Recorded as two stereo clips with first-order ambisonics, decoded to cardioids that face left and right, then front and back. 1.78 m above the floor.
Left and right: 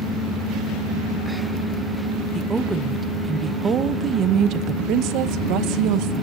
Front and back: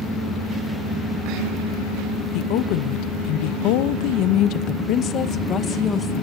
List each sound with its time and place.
2.3 s a woman speaking: straight ahead, 2 m; by 6.2 s 70° right, 1.9 m